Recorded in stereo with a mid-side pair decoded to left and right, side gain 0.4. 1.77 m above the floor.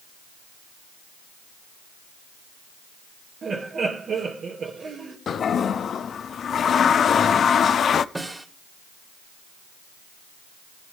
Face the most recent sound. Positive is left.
turn(degrees=-15)